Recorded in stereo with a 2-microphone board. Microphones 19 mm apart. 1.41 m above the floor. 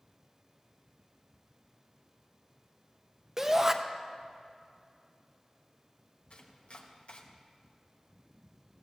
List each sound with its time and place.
3.4 s a shout: 20° right (ahead or behind), 1.0 m
6.3 s chopping: 75° left (ahead or behind), 1.3 m